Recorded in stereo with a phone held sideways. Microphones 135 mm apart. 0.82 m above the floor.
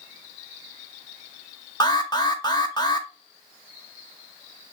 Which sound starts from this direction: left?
An alarm, at 1.8 s.